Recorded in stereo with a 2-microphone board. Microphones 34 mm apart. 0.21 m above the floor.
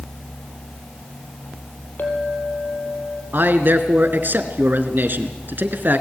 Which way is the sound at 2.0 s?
65° left (ahead or behind).